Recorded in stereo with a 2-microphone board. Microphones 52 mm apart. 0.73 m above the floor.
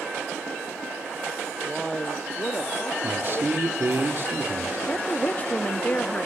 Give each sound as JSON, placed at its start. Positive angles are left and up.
{"t": 1.7, "sound": "a man speaking", "side_deg": -5, "distance_m": 0.5}
{"t": 3.0, "sound": "a man speaking", "side_deg": -50, "distance_m": 1.9}
{"t": 4.9, "sound": "a woman speaking", "side_deg": 30, "distance_m": 0.9}